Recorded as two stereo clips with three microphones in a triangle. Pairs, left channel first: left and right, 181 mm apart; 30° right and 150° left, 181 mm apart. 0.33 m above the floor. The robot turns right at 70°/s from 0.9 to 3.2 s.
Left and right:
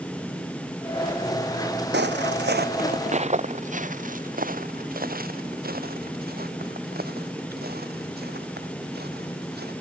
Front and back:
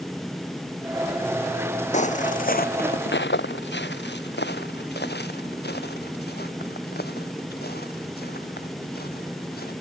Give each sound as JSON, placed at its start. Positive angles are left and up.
{"t": 1.9, "sound": "footsteps", "azimuth_deg": -80}